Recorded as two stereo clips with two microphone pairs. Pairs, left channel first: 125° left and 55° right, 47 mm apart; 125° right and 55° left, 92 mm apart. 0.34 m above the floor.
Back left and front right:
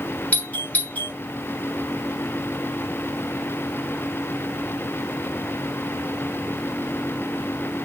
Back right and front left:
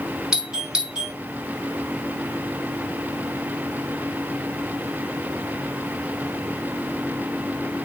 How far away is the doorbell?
About 1.6 m.